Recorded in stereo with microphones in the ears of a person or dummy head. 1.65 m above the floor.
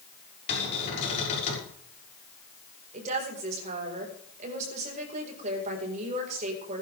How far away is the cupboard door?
About 6.5 m.